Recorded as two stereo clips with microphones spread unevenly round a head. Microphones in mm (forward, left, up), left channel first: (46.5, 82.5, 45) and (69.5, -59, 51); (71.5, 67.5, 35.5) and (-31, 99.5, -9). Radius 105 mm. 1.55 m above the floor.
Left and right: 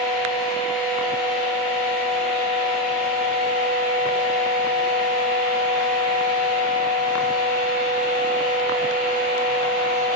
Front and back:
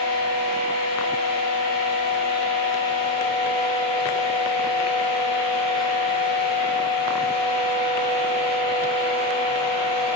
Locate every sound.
0.0 s a fan: 175° right, 1.5 m